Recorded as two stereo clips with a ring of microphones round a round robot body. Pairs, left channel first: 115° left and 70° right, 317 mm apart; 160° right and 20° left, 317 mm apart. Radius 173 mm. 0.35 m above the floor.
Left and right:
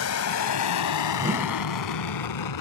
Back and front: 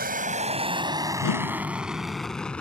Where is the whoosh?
135° right.